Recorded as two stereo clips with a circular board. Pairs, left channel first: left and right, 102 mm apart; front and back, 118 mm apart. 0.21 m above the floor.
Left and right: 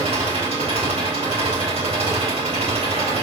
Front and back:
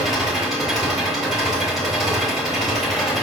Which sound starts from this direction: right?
An engine running, at 0.0 s.